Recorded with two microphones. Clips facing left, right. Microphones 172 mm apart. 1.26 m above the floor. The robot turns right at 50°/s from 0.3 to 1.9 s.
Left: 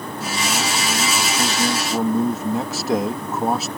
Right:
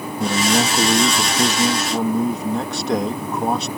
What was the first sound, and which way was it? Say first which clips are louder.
A man speaking: right 7 dB; 75° right.